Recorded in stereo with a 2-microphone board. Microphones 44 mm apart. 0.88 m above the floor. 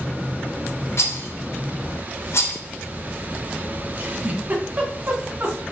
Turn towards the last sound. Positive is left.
turn(degrees=-35)  # may be behind; listen again after turning